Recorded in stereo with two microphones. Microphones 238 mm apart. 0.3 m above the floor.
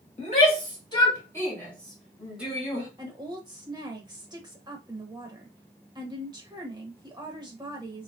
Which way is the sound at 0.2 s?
30° left (ahead or behind).